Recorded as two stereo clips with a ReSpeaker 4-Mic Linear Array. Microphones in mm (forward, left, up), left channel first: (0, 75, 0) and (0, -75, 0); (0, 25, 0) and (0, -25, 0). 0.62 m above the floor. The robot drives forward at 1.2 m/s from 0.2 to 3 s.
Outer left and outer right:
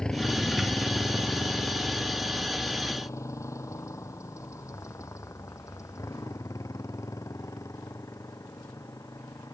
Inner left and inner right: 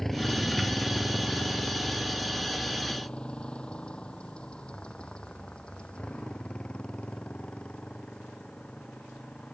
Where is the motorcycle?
5° left (ahead or behind); by 9.5 s 20° left (ahead or behind).